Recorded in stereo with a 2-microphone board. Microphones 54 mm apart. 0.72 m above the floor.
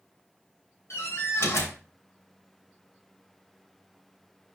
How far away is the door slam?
About 3 m.